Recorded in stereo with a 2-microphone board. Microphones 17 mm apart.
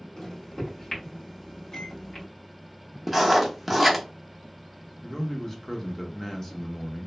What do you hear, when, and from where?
0.2 s a microwave: 40° left (ahead or behind), 1.2 m
3.1 s writing: centre (ahead or behind), 0.7 m
5.0 s a man speaking: 25° left (ahead or behind), 0.6 m